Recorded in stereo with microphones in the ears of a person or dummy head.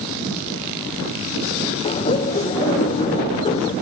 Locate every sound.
1.8 s laughter: 30° left (ahead or behind)